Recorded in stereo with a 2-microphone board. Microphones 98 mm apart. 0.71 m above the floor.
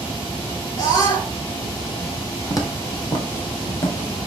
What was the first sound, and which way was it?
A scream, 50° left (ahead or behind).